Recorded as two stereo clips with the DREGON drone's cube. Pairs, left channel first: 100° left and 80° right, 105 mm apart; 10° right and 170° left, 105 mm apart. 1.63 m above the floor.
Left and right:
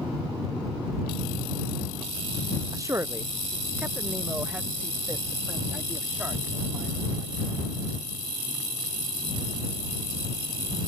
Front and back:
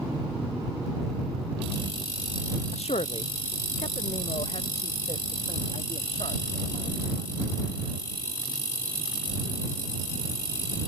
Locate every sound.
2.7 s a man speaking: 20° right; by 7.9 s straight ahead